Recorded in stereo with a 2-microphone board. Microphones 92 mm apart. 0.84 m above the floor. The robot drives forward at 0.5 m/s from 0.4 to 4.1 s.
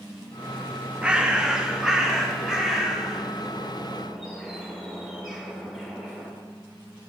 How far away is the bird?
About 0.7 m.